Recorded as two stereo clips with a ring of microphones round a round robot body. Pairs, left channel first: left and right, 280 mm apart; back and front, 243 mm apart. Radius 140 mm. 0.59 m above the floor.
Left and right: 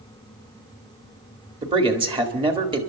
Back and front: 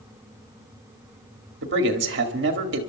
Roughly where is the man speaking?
Ahead right.